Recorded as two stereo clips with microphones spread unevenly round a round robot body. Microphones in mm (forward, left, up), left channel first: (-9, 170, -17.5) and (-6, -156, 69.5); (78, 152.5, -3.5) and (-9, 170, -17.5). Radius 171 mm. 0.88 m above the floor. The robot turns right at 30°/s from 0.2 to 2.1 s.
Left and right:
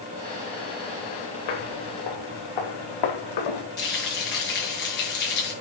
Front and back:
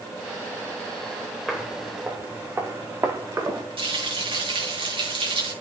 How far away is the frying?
About 6.5 m.